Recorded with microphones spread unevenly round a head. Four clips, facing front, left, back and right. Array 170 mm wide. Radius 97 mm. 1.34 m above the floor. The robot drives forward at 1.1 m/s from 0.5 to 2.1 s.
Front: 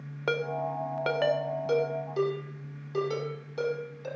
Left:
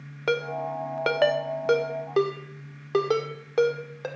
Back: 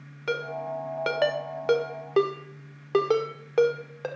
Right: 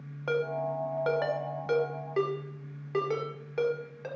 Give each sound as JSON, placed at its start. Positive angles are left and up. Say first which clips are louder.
{"t": 0.3, "sound": "a ringtone", "louder": "left 2 dB, even", "azimuth_deg": 60, "distance_m": 1.2}